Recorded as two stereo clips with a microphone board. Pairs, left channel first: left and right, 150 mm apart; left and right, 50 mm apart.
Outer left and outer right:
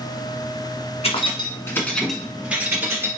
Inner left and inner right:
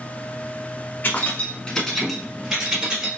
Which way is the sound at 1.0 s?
40° left (ahead or behind).